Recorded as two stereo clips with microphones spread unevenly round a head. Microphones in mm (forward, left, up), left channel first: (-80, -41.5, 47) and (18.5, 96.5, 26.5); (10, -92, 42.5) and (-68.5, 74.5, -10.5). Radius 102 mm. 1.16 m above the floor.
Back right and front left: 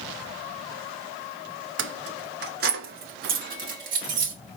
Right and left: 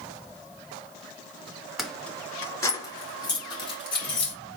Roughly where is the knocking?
I don't hear knocking.